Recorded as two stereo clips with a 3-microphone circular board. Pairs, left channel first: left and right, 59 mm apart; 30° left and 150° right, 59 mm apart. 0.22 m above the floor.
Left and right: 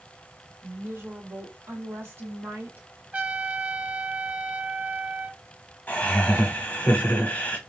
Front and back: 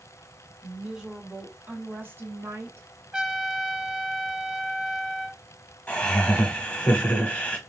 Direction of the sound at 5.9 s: 70° left.